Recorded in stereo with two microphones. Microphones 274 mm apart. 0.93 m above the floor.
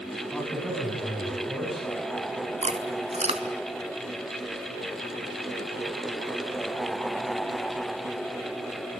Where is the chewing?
25° right (ahead or behind), 1.8 m.